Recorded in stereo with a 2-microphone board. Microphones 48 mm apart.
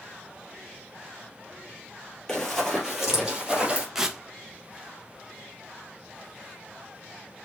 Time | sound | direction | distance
2.3 | running footsteps | 10° left (ahead or behind) | 2 m
4.0 | tearing paper | 10° right (ahead or behind) | 0.7 m